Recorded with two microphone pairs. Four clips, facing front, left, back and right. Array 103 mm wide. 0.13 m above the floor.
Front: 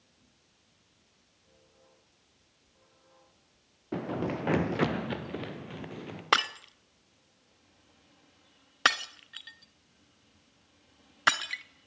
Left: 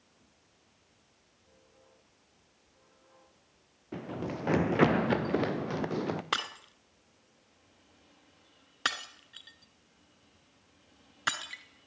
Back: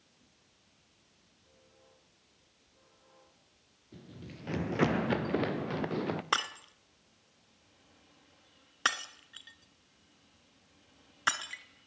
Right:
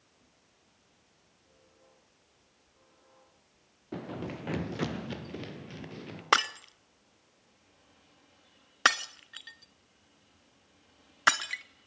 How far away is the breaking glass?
About 1.0 m.